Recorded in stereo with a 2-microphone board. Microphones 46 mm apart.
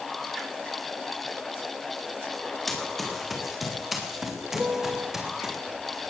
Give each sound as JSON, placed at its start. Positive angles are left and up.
{"t": 2.7, "sound": "running footsteps", "side_deg": 5, "distance_m": 6.0}
{"t": 4.5, "sound": "a piano", "side_deg": -20, "distance_m": 0.7}